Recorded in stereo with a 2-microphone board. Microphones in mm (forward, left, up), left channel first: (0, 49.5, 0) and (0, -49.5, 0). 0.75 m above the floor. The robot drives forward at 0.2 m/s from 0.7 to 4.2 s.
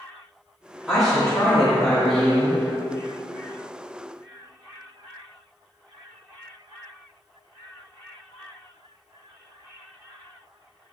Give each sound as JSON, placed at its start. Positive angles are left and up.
{"t": 0.9, "sound": "a woman speaking", "side_deg": 0, "distance_m": 1.1}